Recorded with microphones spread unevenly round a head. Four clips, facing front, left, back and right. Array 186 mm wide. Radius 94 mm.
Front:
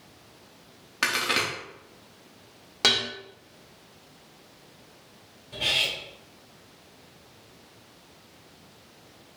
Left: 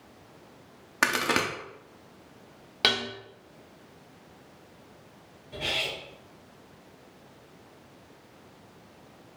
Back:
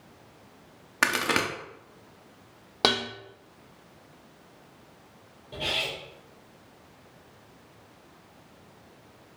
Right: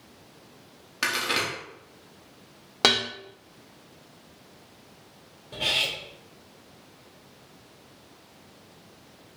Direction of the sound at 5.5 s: 115° right.